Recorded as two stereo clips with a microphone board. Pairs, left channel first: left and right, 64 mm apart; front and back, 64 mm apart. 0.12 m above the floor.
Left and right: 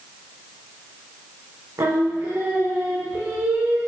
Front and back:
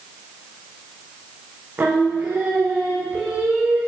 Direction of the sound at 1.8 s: 120° right.